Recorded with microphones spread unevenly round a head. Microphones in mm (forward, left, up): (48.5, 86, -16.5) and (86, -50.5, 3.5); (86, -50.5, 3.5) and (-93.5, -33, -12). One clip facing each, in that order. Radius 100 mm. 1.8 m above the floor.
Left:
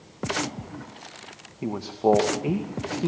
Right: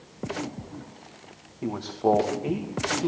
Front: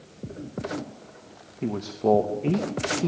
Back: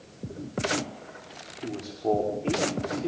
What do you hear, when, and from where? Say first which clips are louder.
1.6 s a man speaking: left 2 dB, front 5 dB; 25° left, 2.5 m